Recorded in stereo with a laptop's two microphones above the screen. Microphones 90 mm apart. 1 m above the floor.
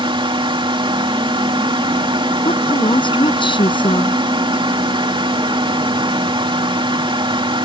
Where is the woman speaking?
55° left (ahead or behind).